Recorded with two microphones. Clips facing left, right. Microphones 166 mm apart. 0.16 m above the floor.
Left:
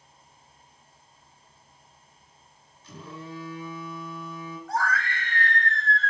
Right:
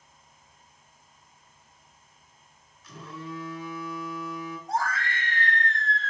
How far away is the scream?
About 1.5 m.